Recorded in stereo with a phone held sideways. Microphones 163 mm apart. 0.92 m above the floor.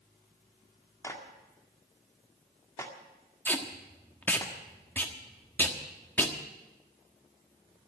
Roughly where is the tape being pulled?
Centre.